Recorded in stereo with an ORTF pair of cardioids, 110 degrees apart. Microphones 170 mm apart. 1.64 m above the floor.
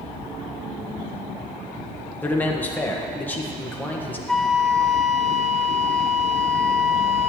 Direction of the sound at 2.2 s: 10° left.